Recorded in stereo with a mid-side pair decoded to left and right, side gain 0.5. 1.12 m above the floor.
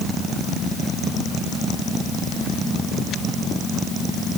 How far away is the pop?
I don't hear a pop.